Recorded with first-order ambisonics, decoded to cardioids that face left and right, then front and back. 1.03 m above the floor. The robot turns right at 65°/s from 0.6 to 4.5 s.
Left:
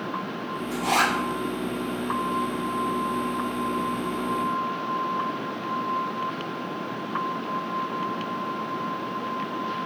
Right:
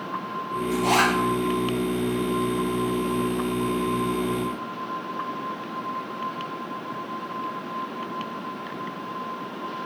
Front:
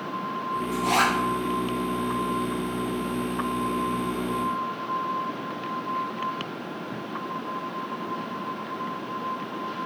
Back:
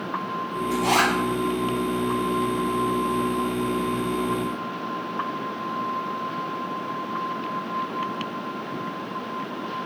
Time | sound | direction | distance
0.7 | a zipper | straight behind | 0.9 m